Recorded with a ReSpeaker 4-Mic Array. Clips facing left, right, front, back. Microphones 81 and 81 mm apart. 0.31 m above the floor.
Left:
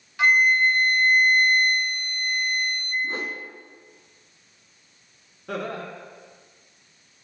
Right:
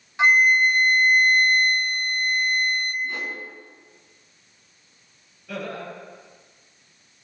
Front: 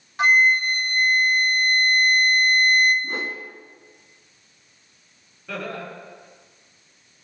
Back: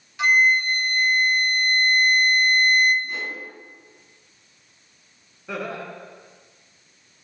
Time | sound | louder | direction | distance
0.2 | a flute | right 1 dB, front 1 dB | 30° right | 1.9 m
3.0 | a whoosh | left 1 dB, front 2 dB | 40° left | 1.3 m
5.5 | laughter | left 2 dB, back 1 dB | 110° left | 4 m